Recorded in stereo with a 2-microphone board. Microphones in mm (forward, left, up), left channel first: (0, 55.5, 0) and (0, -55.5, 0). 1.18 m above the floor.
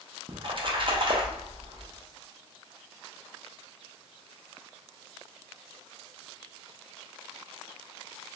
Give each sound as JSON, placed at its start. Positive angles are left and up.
{"t": 0.3, "sound": "a splash", "side_deg": -50, "distance_m": 0.8}